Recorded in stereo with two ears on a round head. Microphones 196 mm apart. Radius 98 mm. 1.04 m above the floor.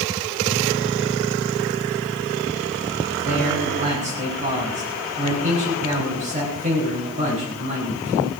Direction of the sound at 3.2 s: 35° right (ahead or behind).